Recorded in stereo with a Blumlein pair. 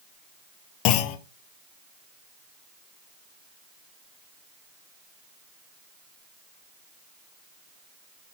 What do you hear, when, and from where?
0.8 s a clunk: 40° left, 0.5 m